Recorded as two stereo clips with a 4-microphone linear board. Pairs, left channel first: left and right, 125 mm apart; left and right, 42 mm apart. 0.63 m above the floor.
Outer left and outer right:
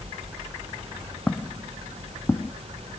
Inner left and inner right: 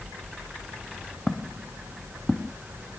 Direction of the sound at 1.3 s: 10° left (ahead or behind).